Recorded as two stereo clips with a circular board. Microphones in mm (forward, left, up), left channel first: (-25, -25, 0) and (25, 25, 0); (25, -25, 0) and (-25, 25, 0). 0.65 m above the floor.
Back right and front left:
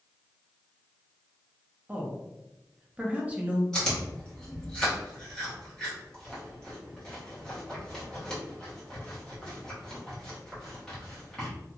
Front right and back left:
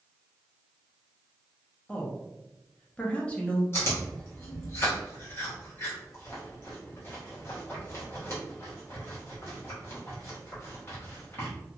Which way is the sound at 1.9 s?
Straight ahead.